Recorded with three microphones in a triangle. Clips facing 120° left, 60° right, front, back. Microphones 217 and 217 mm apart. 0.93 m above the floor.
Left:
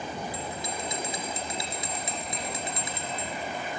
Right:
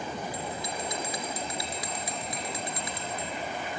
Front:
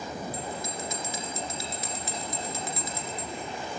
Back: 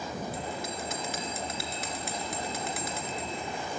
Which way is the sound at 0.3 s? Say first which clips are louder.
Even, even; straight behind.